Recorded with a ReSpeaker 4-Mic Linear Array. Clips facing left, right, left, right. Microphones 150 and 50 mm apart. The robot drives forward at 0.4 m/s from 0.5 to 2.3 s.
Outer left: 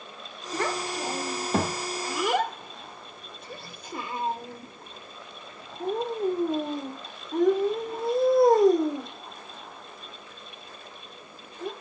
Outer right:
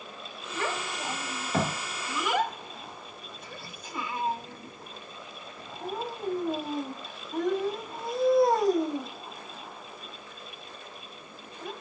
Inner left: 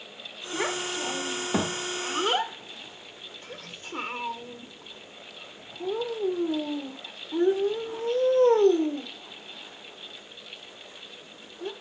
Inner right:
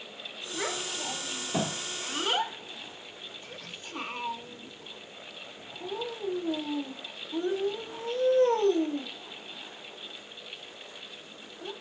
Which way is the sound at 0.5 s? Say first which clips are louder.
Outer left 4 dB, inner left 5 dB; 65° left (ahead or behind).